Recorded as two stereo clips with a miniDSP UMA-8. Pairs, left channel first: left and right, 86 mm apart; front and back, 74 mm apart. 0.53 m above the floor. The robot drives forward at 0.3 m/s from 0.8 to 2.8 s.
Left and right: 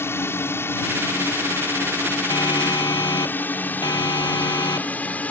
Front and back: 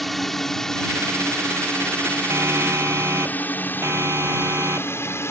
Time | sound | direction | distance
0.0 | a drone | 85° left | ?
2.3 | a siren | 125° left | ?